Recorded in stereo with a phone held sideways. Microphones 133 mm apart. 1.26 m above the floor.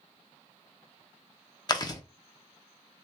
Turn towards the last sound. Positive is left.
turn(degrees=30)  # may be behind; listen again after turning